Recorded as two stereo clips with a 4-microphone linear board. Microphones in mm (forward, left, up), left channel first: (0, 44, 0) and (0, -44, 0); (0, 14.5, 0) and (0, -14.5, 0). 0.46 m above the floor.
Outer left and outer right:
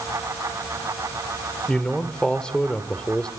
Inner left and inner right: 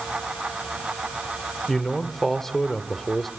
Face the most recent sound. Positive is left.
turn(degrees=10)  # may be behind; listen again after turning